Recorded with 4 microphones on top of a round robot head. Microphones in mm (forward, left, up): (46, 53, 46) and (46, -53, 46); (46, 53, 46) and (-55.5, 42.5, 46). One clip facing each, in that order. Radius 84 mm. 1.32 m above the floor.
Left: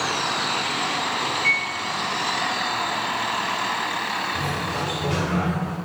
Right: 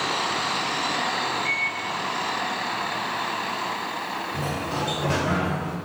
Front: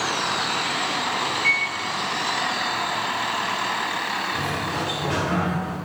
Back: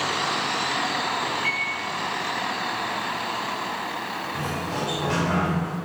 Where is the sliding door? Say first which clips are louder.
Left 1 dB, front 2 dB; 105° right, 0.6 m.